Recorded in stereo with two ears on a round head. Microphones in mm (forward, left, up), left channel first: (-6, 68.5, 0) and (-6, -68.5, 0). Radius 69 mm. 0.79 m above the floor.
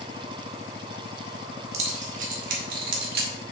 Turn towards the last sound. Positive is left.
turn(degrees=-70)  # may be behind; listen again after turning